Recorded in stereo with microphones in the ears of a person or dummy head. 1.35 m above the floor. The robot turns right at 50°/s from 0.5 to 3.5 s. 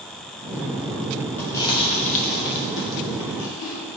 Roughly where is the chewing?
Centre.